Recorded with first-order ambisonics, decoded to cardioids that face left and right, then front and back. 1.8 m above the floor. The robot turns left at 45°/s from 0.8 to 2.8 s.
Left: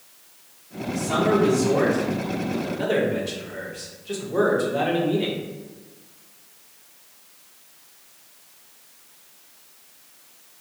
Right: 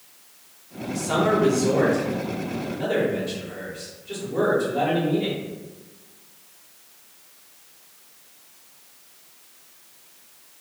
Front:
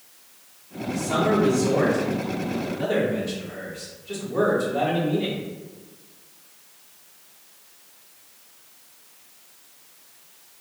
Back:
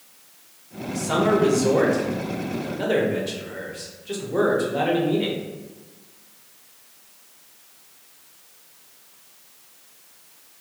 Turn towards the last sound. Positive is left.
turn(degrees=140)